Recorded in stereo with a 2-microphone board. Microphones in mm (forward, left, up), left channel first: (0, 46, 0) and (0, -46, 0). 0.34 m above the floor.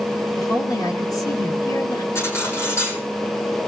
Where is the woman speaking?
45° left (ahead or behind), 4 m.